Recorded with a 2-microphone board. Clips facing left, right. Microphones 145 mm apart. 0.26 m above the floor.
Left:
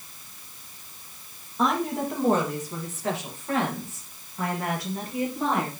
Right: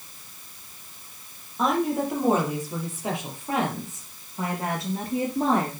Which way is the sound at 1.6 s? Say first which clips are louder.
Right 2 dB; centre (ahead or behind).